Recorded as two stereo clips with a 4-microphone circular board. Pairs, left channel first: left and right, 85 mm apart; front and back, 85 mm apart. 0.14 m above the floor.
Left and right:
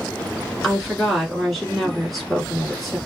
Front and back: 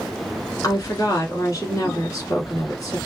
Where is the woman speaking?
5° left, 1.5 m.